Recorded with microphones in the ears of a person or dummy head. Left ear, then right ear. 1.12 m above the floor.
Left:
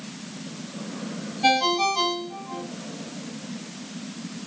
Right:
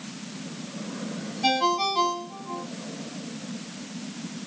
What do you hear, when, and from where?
1.4 s a ringtone: 10° left (ahead or behind), 6 m